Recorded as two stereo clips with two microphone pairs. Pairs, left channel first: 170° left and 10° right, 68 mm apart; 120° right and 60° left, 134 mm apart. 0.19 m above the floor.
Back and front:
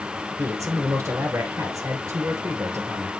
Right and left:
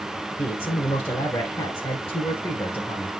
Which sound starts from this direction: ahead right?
A man speaking, at 0.4 s.